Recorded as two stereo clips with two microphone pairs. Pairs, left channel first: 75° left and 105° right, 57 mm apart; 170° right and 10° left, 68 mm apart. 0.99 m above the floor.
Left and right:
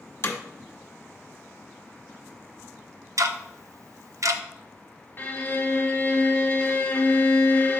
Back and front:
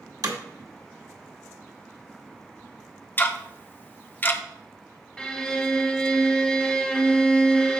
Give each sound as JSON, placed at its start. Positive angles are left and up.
{"t": 0.2, "sound": "hammering", "azimuth_deg": 35, "distance_m": 1.3}
{"t": 3.2, "sound": "ticking", "azimuth_deg": -110, "distance_m": 0.6}
{"t": 5.2, "sound": "a violin", "azimuth_deg": 125, "distance_m": 1.3}